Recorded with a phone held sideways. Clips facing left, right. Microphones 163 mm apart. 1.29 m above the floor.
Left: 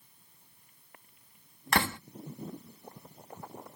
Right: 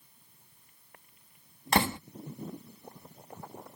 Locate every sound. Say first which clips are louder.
1.7 s a door slam: right 3 dB; 20° right (ahead or behind)